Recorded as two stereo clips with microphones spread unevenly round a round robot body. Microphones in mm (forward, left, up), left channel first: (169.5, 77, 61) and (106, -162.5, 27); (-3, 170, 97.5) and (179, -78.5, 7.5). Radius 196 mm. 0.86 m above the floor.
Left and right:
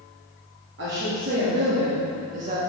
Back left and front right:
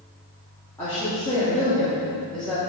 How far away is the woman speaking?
About 2.5 m.